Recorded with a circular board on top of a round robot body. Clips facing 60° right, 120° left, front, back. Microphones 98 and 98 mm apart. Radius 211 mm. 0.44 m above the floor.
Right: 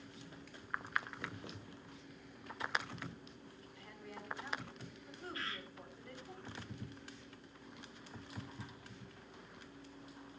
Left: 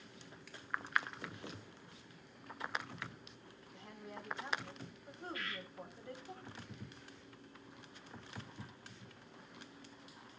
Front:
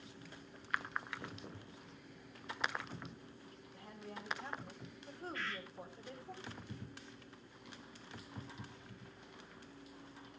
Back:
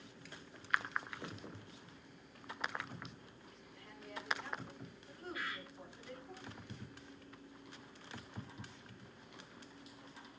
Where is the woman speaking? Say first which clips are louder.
Left 2 dB, even; 55° left, 4 m.